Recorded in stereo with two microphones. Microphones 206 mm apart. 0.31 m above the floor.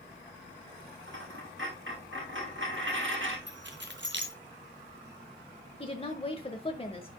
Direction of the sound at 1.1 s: 70° right (ahead or behind).